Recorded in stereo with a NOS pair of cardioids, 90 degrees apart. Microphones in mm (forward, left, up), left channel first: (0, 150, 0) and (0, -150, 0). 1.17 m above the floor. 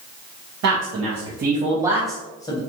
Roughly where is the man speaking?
Ahead right.